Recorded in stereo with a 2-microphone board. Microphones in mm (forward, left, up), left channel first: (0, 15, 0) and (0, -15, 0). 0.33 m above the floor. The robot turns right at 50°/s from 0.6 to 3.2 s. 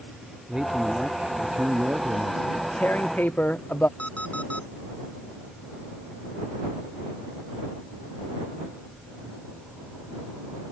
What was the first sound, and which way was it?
A man speaking, 160° right.